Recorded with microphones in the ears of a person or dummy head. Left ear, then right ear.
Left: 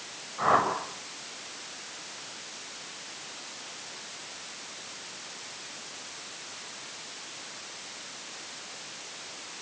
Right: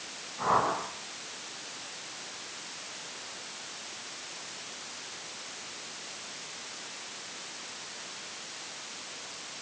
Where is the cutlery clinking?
No cutlery clinking in this recording.